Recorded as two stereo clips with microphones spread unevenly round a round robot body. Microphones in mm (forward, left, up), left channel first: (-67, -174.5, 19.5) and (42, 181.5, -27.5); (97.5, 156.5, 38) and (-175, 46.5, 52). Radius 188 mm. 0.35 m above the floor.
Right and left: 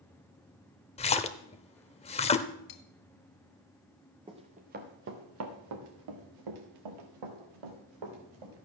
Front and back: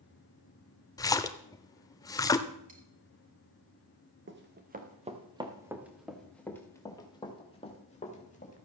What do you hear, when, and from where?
1.0 s a splash: 35° right, 0.6 m
2.7 s cutlery clinking: 90° right, 1.3 m
4.3 s running footsteps: 150° left, 2.5 m; by 8.6 s 85° left, 4.5 m